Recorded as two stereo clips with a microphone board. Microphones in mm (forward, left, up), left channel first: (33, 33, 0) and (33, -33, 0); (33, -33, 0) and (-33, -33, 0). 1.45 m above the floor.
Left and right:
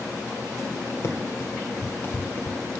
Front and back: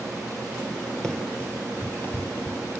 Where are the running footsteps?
70° left, 2.0 m; by 2.6 s 40° left, 2.5 m.